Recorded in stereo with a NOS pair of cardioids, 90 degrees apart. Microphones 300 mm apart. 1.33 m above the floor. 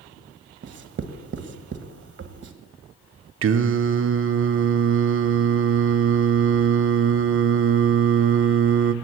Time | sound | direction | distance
0.6 | writing | 40° right | 1.1 m
3.4 | singing | 45° right | 0.8 m